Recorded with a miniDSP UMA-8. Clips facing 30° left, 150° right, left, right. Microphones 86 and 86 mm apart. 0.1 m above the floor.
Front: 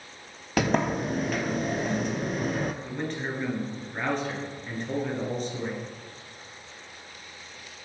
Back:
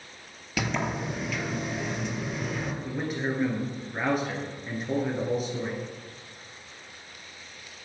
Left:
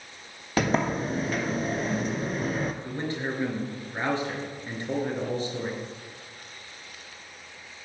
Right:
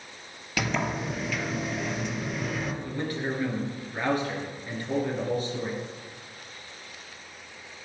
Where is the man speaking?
130° left, 2.0 m.